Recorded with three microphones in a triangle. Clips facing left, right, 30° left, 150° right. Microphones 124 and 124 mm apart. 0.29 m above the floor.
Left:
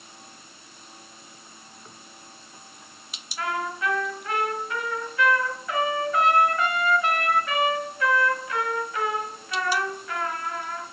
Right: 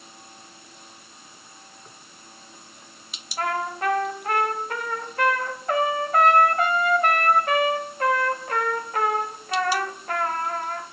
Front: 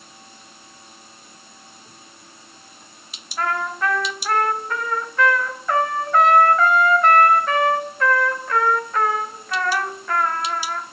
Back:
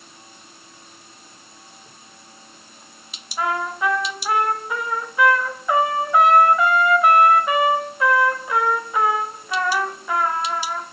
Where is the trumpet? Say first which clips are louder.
Right 2 dB, back 1 dB; 75° right, 1.1 m.